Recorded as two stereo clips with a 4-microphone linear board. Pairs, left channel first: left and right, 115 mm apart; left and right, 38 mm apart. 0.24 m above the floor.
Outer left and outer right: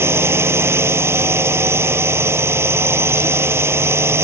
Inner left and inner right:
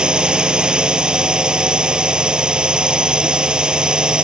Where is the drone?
20° right (ahead or behind).